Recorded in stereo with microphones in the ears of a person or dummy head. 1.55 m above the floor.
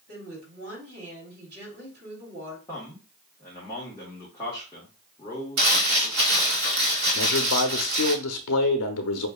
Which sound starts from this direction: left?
A man speaking, at 7.2 s.